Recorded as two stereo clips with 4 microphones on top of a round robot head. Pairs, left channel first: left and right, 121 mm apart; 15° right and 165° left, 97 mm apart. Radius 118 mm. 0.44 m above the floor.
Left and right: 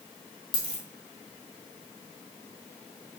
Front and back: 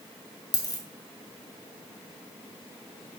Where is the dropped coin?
35° left, 1.7 m.